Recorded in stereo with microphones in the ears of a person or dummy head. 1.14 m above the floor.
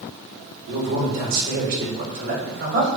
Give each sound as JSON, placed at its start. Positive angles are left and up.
{"t": 0.7, "sound": "a man speaking", "side_deg": -55, "distance_m": 3.5}